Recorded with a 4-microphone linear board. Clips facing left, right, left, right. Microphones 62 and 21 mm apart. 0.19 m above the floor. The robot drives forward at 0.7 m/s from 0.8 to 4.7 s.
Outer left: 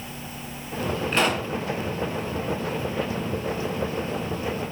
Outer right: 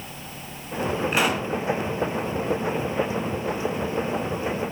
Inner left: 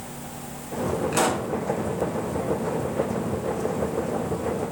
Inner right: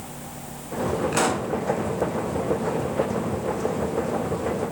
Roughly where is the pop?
Centre.